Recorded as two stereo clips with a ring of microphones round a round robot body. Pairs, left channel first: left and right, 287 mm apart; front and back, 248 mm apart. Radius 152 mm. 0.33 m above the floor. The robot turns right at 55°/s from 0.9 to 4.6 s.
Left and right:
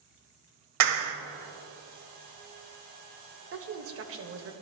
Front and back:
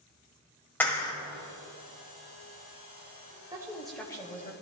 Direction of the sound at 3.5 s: 110° right.